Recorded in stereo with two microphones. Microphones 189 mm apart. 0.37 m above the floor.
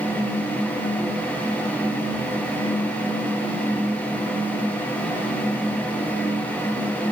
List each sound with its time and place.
Only background noise.